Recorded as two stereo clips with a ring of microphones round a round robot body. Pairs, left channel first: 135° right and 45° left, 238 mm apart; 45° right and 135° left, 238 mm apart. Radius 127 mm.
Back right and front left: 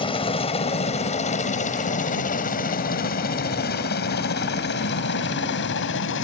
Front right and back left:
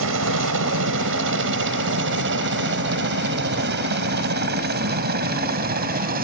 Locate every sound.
0.0 s a helicopter: 160° left; by 6.2 s 170° right